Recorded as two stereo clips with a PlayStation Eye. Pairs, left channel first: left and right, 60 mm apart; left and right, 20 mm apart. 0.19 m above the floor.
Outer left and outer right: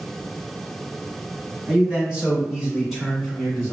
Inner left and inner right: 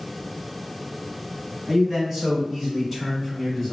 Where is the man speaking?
30° right (ahead or behind), 1.3 m; by 3.7 s 10° left (ahead or behind), 1.7 m.